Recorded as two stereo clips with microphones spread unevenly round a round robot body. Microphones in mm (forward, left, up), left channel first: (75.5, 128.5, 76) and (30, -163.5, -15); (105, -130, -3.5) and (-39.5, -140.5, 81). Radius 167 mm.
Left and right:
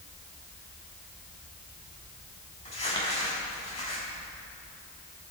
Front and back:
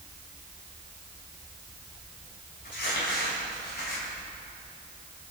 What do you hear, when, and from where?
2.6 s crumpling: 10° left, 6 m